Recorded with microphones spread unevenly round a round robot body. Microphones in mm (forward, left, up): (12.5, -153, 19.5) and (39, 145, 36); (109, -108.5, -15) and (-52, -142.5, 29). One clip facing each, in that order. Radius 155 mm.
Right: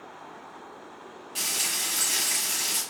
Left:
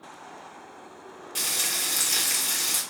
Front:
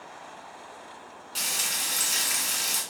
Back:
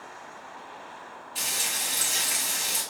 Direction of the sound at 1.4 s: 20° left.